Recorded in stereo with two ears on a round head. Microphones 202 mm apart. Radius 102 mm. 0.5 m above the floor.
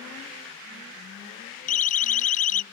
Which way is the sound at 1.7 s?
35° left (ahead or behind).